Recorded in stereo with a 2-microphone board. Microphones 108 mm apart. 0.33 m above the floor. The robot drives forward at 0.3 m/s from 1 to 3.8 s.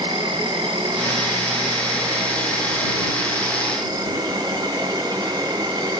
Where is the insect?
55° right (ahead or behind), 1.9 m; by 6.0 s 40° right (ahead or behind), 2.5 m.